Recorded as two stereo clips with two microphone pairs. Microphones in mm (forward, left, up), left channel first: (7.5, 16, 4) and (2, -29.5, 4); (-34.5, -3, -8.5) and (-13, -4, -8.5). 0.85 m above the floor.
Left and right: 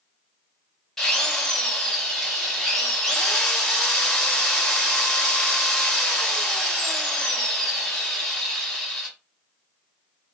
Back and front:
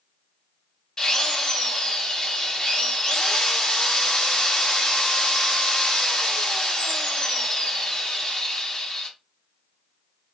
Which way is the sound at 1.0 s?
155° left.